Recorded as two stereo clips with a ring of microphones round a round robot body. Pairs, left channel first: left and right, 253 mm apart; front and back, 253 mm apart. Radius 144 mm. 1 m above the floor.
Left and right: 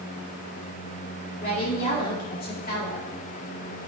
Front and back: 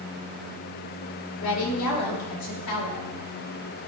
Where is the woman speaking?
30° left, 2 m.